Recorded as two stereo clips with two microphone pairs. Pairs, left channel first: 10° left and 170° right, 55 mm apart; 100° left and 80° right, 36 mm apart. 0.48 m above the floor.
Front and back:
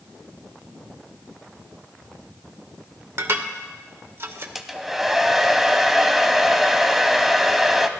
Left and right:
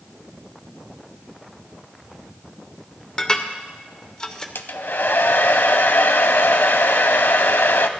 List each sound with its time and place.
3.2 s dishes clattering: 160° left, 0.9 m
4.5 s a hair dryer: 105° left, 0.6 m